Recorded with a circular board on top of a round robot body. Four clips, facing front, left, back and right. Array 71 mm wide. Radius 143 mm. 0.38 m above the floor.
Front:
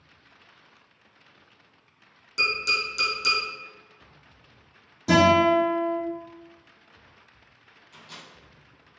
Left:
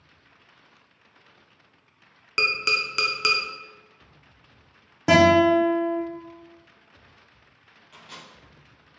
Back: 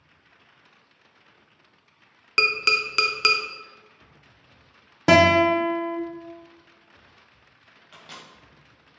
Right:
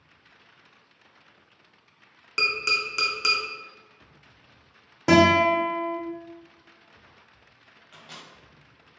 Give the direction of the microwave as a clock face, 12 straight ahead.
6 o'clock.